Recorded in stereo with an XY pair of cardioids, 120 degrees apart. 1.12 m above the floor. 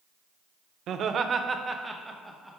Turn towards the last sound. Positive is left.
turn(degrees=0)